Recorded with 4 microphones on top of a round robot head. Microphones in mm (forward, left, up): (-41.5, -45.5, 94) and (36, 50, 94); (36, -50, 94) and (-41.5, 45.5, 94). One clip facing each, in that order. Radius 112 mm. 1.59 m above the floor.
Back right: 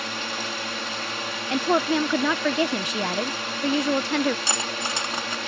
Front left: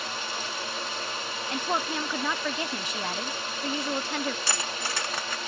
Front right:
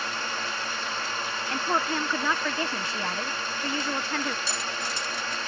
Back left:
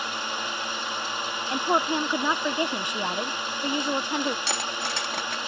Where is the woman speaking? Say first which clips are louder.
Back right 9 dB, back left 4 dB; 155° right.